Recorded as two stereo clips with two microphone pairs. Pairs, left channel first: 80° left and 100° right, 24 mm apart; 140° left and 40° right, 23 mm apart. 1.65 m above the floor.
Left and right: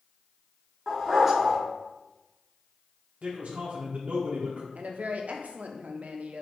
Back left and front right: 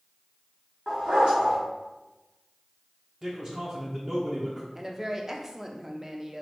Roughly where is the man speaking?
Right.